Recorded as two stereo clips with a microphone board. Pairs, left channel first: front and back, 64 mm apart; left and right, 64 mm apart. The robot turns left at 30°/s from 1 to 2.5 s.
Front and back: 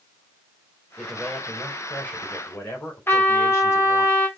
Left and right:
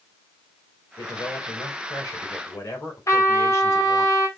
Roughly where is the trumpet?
Ahead left.